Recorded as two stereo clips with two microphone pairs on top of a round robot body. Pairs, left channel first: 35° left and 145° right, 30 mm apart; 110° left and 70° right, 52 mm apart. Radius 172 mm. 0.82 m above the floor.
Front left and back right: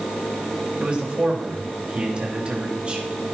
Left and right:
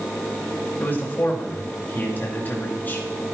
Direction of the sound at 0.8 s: 165° left.